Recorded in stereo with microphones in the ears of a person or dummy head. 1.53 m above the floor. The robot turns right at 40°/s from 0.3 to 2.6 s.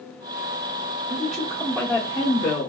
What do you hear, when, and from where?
1.1 s a woman speaking: 20° right, 0.8 m; by 2.7 s 40° left, 0.8 m